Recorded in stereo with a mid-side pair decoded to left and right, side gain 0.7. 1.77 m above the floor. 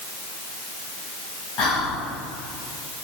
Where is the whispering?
60° left, 1.6 m.